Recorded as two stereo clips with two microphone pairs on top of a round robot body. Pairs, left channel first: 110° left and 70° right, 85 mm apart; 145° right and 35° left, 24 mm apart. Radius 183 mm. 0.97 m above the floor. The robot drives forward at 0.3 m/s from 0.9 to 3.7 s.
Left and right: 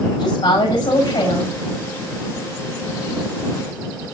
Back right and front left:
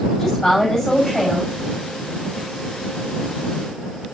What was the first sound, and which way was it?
A woman speaking, 140° left.